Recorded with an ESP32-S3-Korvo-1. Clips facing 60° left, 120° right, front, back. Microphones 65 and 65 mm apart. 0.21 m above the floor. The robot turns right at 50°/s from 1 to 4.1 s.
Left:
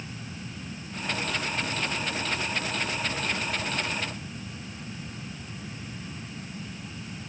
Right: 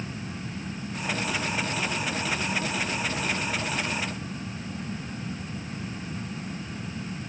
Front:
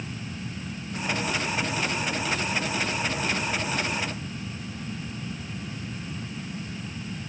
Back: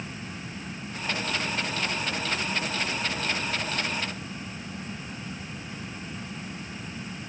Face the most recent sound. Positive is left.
No sound to turn to.